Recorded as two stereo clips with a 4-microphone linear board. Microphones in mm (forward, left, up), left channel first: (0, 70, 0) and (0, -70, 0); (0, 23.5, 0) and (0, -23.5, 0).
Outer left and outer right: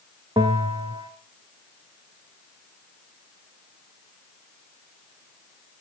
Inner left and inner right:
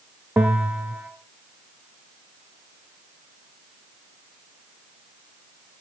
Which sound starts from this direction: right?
A bell, at 0.4 s.